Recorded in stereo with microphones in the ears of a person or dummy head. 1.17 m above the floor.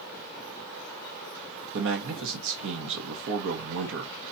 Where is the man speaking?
60° right (ahead or behind), 1.5 m.